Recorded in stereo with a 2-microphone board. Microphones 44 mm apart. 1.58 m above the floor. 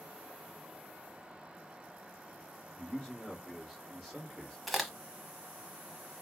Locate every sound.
2.8 s a man speaking: 15° left (ahead or behind), 1.7 m; by 4.6 s 5° left (ahead or behind), 3 m
4.7 s a crack: centre (ahead or behind), 0.8 m